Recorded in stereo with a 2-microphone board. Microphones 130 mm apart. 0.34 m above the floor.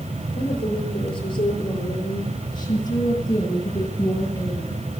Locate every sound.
0.3 s a woman speaking: 45° left (ahead or behind), 7 m; by 4.8 s 20° left (ahead or behind), 8.5 m